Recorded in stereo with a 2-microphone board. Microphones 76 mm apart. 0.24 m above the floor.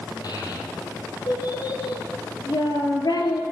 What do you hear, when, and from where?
0.2 s a child speaking: 60° left (ahead or behind), 4.5 m; by 3.4 s 70° left (ahead or behind), 3 m